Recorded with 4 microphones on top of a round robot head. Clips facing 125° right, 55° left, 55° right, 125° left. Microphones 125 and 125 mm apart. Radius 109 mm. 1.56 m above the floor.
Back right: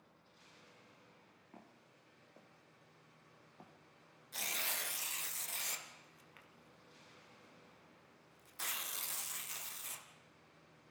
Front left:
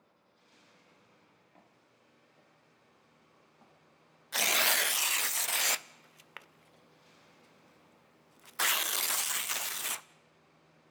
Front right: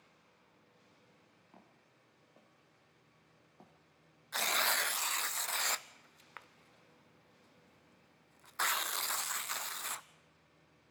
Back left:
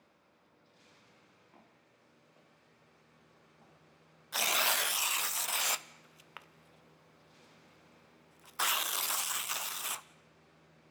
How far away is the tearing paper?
About 0.5 m.